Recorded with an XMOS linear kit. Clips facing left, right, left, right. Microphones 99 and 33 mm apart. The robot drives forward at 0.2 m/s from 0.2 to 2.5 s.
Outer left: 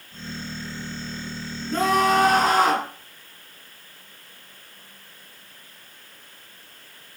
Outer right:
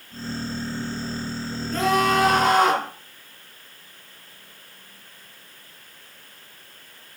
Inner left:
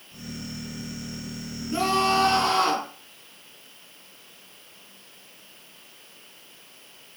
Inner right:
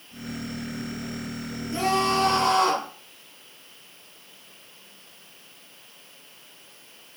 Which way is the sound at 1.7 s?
30° left (ahead or behind).